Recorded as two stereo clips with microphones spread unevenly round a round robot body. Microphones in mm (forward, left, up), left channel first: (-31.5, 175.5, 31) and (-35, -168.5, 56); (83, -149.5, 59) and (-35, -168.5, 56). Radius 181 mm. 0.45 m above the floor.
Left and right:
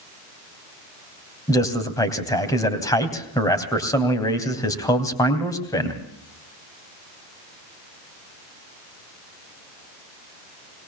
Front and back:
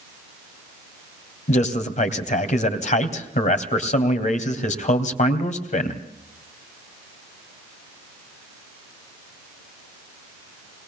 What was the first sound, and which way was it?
A man speaking, 10° left.